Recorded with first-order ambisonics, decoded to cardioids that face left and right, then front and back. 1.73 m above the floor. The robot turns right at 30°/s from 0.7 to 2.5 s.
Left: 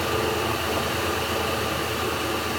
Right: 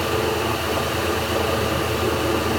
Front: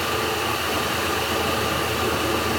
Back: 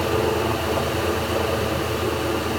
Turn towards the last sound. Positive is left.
turn(degrees=-100)